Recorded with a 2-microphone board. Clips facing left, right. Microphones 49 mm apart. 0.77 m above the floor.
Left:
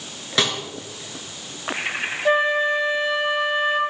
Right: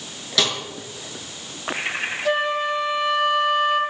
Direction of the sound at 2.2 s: 25° left (ahead or behind).